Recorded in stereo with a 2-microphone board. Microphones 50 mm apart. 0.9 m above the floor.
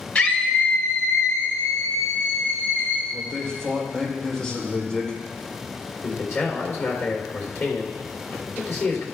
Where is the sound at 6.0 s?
65° left (ahead or behind), 3 m.